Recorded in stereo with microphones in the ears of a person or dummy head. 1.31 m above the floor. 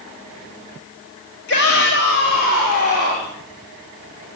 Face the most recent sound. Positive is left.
turn(degrees=45)  # may be behind; listen again after turning